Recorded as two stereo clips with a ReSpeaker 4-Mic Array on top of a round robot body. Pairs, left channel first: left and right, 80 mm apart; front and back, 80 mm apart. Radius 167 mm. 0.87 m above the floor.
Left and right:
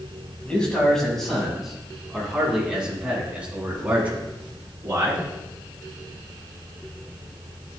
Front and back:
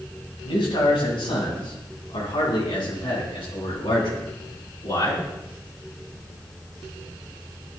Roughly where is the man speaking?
Ahead.